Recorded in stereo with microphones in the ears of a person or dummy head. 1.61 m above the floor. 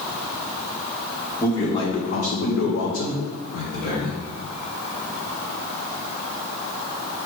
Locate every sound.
1.4 s a man speaking: 10° left (ahead or behind), 1.0 m; by 4.2 s 70° left (ahead or behind), 1.6 m